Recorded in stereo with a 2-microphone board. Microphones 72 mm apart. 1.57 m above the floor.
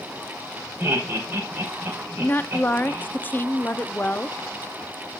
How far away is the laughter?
About 6 m.